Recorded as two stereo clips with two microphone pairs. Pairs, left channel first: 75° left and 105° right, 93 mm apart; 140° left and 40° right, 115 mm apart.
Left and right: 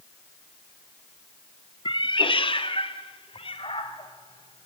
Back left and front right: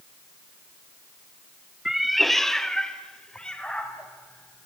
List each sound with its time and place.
1.9 s a cat meowing: 45° left, 0.6 m; by 4.7 s 55° left, 2.5 m